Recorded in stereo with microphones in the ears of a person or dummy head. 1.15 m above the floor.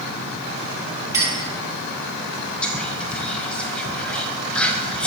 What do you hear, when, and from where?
1.1 s a clink: 15° right (ahead or behind), 1.3 m
2.6 s whispering: 5° left (ahead or behind), 0.6 m